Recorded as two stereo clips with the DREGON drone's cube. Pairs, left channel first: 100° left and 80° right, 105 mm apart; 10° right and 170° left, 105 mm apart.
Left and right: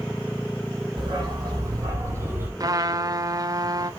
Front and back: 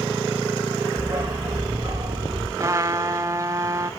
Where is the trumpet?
130° right, 0.7 m.